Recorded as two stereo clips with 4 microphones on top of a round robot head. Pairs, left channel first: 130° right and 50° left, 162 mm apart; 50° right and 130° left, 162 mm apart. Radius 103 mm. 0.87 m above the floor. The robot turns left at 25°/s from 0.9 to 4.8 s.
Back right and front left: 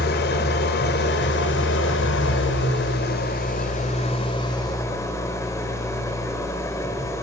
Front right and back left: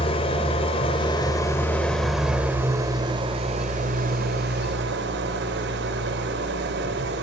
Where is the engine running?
110° right, 1.3 m; by 7.2 s 155° left, 1.3 m.